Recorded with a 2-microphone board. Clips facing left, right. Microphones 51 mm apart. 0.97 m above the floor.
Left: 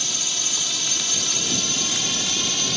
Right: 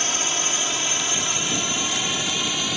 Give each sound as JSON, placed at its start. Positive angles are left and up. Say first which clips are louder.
{"t": 0.0, "sound": "a drone", "louder": "right 5 dB", "side_deg": -40}